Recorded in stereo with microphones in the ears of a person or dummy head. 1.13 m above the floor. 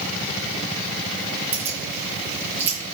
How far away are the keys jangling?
About 2.5 m.